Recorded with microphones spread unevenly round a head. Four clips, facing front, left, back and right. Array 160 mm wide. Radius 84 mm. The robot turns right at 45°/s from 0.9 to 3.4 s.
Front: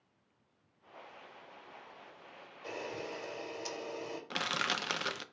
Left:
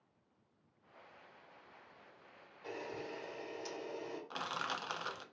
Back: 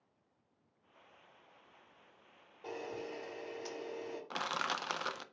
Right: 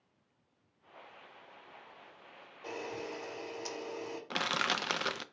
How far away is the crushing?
About 0.6 m.